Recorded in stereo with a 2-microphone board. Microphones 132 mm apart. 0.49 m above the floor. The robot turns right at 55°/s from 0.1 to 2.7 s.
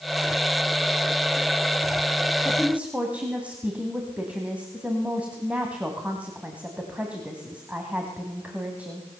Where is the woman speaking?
5° left (ahead or behind), 3 m; by 9.1 s 10° right (ahead or behind), 3 m.